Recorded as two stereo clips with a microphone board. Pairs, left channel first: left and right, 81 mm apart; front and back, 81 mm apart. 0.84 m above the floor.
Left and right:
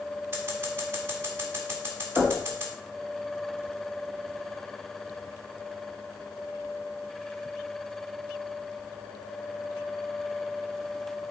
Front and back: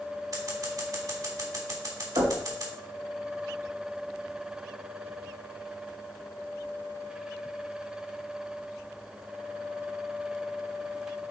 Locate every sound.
0.3 s scissors: 145° right, 1.8 m
2.2 s knocking: 175° left, 2.5 m